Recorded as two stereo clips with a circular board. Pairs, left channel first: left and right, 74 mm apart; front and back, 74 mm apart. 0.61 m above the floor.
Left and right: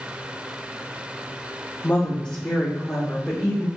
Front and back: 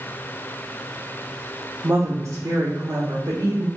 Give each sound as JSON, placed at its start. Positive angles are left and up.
{"t": 1.8, "sound": "a woman speaking", "azimuth_deg": 150, "distance_m": 0.8}